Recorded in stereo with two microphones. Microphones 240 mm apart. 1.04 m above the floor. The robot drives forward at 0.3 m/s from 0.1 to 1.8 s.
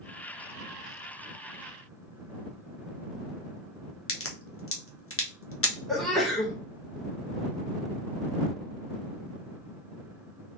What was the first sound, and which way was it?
A crack, 60° left (ahead or behind).